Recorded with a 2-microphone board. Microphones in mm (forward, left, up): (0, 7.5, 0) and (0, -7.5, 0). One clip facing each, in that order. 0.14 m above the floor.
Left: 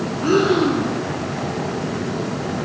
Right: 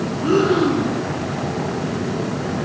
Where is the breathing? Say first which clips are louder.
Even; 60° left (ahead or behind), 0.7 m.